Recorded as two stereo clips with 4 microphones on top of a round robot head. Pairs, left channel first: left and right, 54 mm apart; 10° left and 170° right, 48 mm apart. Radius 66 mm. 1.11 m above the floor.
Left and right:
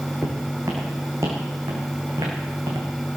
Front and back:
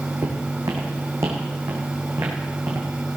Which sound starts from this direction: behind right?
Footsteps, at 0.2 s.